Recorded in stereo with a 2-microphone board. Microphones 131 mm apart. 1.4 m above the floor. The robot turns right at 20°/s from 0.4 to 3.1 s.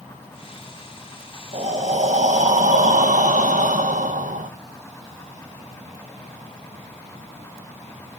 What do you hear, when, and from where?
1.5 s breathing: 120° right, 0.9 m; by 4.5 s 85° right, 0.9 m